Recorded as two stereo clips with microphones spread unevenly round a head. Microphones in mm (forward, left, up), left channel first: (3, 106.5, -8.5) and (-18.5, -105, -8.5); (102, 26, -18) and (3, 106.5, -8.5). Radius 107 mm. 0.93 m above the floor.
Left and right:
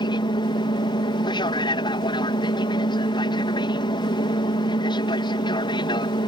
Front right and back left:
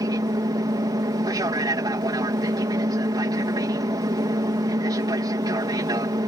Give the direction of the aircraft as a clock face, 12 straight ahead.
8 o'clock.